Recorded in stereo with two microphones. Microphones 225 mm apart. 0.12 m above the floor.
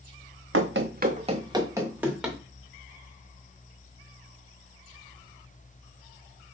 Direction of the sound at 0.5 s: 75° right (ahead or behind).